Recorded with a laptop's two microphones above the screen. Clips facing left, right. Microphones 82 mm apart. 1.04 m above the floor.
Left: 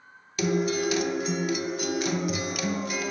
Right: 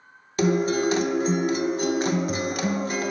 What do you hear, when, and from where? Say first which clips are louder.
0.4 s a guitar: right 4 dB; 35° right (ahead or behind), 0.5 m